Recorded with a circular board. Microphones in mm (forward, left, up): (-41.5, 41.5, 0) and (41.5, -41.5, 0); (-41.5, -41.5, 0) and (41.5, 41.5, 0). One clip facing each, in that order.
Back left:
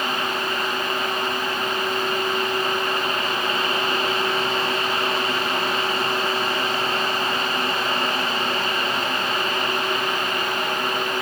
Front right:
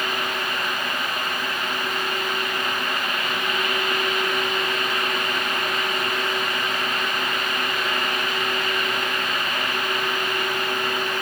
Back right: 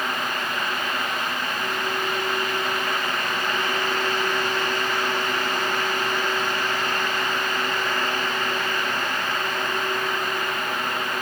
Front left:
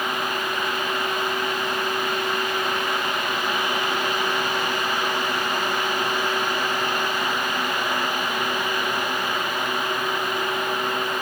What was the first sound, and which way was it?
Only background noise.